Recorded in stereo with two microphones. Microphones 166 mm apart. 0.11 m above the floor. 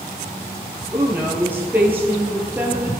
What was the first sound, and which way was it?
A woman speaking, 10° right (ahead or behind).